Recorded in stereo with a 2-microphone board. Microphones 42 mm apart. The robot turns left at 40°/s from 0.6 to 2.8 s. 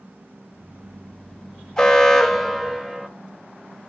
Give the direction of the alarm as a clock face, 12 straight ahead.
11 o'clock.